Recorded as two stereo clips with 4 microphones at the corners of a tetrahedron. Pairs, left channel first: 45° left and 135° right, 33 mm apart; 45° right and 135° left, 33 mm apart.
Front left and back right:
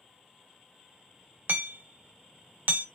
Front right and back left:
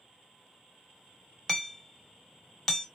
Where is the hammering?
120° right, 0.8 m.